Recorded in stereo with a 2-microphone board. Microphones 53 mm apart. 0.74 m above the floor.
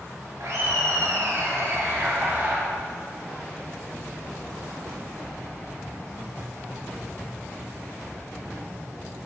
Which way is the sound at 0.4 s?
75° right (ahead or behind).